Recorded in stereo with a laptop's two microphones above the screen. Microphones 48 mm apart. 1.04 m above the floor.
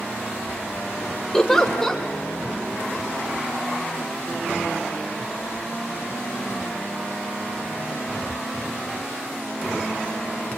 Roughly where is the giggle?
Centre.